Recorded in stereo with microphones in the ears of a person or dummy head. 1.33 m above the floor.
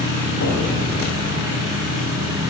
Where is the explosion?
75° left (ahead or behind), 2.5 m.